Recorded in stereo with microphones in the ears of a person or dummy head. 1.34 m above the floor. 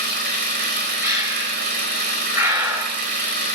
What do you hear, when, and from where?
0.0 s an engine running: 55° right (ahead or behind), 4 m
1.0 s breathing: 15° right (ahead or behind), 6 m